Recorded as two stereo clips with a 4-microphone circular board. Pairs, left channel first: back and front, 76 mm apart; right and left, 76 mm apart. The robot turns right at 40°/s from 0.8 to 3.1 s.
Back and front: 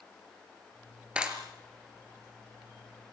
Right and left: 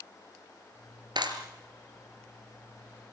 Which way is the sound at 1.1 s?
75° left.